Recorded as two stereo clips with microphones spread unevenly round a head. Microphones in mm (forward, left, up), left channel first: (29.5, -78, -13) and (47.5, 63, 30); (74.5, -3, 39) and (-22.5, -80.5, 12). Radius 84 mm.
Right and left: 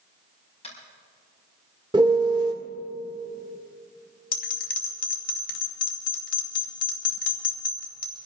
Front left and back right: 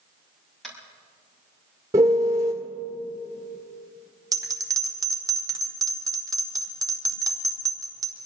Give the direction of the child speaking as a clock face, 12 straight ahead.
I don't hear a child speaking.